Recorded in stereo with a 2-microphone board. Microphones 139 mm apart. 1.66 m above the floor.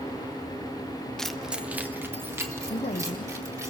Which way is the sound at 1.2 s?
5° left (ahead or behind).